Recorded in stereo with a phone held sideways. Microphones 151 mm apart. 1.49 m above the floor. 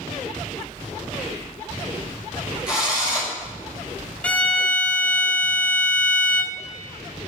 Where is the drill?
10° right (ahead or behind), 2.5 m.